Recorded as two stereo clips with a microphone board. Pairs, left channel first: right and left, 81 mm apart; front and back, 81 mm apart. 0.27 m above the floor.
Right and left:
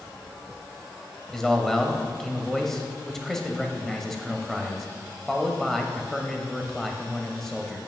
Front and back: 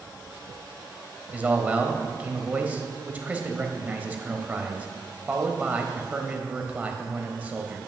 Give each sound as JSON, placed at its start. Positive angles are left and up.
{"t": 1.3, "sound": "a man speaking", "azimuth_deg": -165, "distance_m": 0.9}